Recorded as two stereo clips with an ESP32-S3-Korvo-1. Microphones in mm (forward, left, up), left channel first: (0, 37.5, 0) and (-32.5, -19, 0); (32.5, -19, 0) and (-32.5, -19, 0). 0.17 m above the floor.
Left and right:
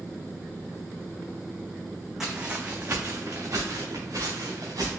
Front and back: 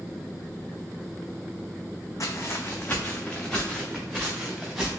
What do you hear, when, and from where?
2.2 s footsteps: 40° right, 0.7 m; by 4.9 s 90° right, 1.8 m